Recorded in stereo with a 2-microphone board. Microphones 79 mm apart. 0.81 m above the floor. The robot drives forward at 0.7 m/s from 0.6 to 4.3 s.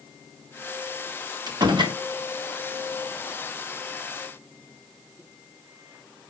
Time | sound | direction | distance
1.5 | a door slam | 65° right (ahead or behind) | 1.8 m